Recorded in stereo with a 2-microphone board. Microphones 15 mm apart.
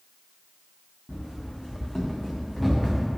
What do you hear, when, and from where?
1.1 s running footsteps: 85° left, 1.5 m; by 3.1 s centre (ahead or behind), 2.0 m